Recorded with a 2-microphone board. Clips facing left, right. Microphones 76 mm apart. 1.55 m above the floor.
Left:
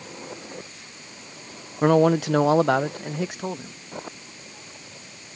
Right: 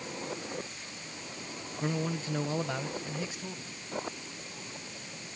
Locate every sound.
1.8 s a man speaking: 60° left (ahead or behind)